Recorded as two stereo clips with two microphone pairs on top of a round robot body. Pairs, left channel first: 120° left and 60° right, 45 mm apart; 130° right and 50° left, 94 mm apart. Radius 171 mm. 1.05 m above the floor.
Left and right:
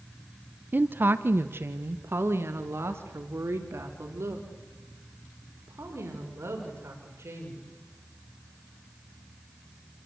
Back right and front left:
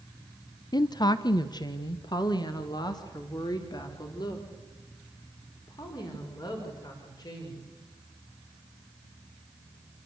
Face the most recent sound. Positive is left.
turn(degrees=-85)